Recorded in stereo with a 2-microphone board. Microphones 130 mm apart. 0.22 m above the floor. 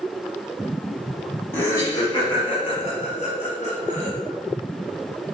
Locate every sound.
1.5 s laughter: 15° left (ahead or behind), 1.4 m; by 4.1 s 65° left (ahead or behind), 3 m